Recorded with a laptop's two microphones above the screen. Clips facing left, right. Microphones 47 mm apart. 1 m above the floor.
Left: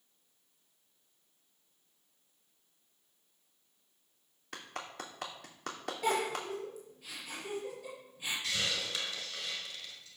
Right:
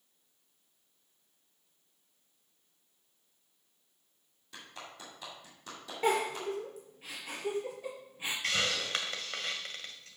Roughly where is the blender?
No blender in this recording.